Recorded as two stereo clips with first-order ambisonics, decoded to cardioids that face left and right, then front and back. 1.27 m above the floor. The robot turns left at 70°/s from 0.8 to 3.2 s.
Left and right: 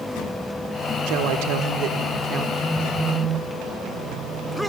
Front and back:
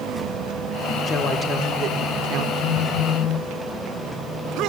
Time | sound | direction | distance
1.1 | a woman speaking | 60° right | 1.5 m
2.6 | a phone buzzing | 25° left | 0.7 m